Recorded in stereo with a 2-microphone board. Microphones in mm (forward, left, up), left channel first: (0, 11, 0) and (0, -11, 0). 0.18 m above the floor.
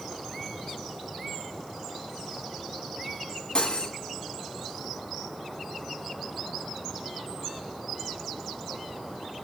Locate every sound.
3.5 s cutlery clinking: 40° left (ahead or behind), 0.9 m